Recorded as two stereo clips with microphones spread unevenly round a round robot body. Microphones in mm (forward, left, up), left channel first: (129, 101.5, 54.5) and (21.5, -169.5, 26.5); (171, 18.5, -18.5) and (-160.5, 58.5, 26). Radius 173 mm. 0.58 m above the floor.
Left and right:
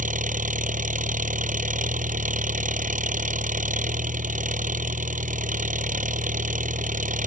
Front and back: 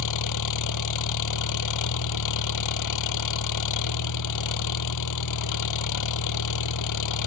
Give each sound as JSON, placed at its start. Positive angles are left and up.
{"t": 0.0, "sound": "an engine running", "azimuth_deg": -50}